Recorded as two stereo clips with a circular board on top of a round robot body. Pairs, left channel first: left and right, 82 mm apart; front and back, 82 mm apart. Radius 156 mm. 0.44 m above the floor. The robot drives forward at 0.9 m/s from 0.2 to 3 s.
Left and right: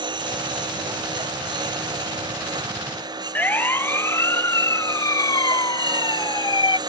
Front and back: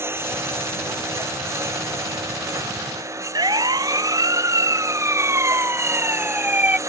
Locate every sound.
0.0 s a lawn mower: 120° right; by 6.9 s 125° right
3.4 s a siren: 155° left; by 6.8 s 110° left